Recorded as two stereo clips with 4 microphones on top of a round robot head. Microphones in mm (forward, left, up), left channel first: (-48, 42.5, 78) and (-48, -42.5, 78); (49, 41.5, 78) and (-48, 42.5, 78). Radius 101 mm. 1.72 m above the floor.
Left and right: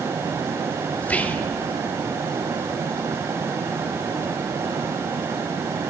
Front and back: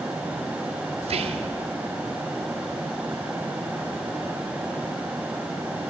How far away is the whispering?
About 1.0 m.